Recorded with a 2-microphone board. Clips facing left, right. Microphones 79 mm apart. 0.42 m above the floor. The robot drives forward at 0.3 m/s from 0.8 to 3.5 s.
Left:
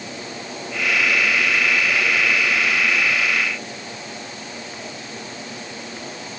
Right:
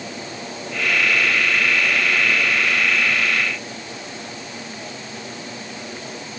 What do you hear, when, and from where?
Only background noise.